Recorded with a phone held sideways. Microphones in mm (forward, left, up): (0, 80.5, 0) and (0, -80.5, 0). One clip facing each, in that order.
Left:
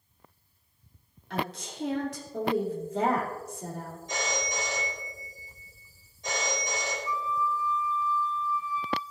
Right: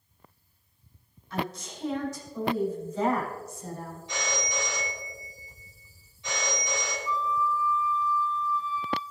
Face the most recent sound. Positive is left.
turn(degrees=20)  # may be behind; listen again after turning